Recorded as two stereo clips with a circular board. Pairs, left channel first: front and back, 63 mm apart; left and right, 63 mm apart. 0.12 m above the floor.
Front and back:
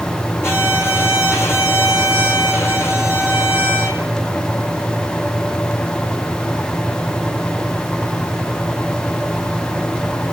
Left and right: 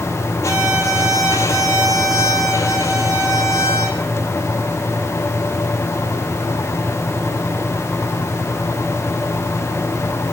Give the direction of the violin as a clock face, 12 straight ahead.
10 o'clock.